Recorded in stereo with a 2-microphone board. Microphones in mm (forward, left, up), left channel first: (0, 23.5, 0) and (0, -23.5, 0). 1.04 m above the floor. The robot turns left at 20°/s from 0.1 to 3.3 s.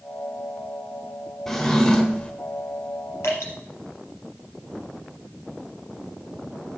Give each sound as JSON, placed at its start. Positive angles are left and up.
{"t": 1.5, "sound": "a drawer", "side_deg": 10, "distance_m": 1.1}
{"t": 3.2, "sound": "dripping", "side_deg": 75, "distance_m": 4.5}